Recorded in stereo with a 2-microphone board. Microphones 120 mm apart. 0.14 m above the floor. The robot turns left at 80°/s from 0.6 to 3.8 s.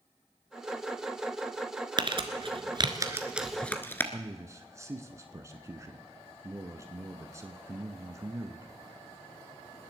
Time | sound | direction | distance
2.0 | crumpling | 40° right (ahead or behind) | 1.3 m
4.1 | a man speaking | 25° right (ahead or behind) | 1.2 m